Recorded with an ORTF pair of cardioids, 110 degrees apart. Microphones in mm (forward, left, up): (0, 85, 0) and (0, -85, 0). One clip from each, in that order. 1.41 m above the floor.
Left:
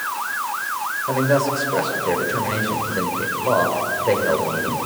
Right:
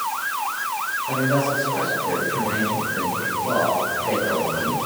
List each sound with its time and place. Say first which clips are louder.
1.1 s a man speaking: left 3 dB; 45° left, 6 m